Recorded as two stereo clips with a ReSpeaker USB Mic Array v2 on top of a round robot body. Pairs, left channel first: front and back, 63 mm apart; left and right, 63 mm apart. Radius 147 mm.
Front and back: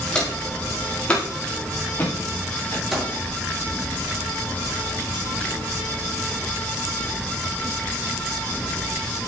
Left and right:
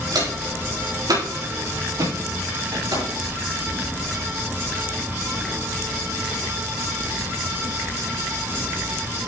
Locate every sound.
0.1 s footsteps: 75° right, 7.5 m; by 2.8 s 60° right, 9.5 m
2.9 s a microwave: 90° right, 7 m